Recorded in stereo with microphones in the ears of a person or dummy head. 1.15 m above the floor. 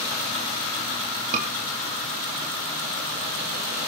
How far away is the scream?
About 2.5 m.